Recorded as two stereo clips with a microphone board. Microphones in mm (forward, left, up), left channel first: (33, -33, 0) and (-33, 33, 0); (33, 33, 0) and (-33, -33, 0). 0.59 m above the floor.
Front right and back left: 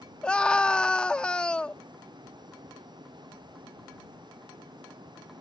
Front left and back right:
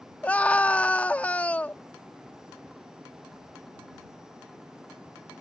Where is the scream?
15° left.